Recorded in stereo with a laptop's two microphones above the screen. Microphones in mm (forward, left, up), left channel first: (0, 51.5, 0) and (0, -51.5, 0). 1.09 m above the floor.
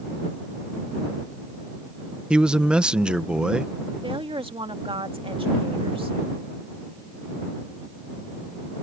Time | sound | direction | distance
2.3 | a man speaking | 10° right (ahead or behind) | ?
4.0 | a woman speaking | 60° right (ahead or behind) | ?